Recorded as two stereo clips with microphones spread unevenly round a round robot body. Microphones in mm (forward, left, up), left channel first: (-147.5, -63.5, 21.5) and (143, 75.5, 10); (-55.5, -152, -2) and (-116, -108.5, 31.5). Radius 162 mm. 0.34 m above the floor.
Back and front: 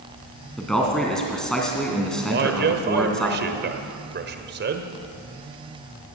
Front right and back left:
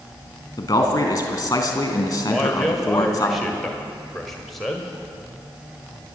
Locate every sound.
0.6 s a man speaking: 65° right, 2.5 m
2.3 s a man speaking: 5° left, 1.5 m